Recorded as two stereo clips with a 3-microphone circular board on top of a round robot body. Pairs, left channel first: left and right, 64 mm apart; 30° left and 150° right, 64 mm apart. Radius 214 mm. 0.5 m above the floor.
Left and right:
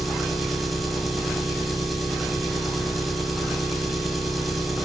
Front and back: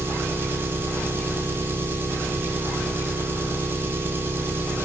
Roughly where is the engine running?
Behind.